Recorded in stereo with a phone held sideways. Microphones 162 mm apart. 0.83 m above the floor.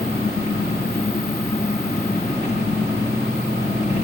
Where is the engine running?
40° left (ahead or behind), 6 m.